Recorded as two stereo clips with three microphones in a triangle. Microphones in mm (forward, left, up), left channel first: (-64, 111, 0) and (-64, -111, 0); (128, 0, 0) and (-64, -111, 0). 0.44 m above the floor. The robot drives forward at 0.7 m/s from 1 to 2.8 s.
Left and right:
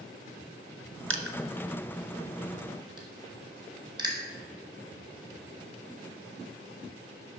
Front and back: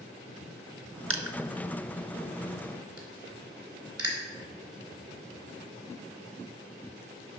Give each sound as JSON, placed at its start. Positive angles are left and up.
{"t": 1.1, "sound": "crushing", "azimuth_deg": -120, "distance_m": 0.6}